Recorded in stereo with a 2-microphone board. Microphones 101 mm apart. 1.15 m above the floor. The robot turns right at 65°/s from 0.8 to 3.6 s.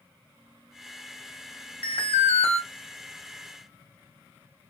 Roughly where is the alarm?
Ahead left.